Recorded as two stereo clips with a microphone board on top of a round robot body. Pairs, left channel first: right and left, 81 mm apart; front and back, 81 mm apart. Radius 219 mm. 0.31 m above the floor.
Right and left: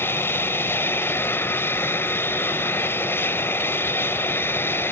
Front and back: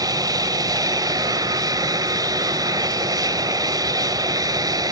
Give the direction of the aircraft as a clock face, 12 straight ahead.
5 o'clock.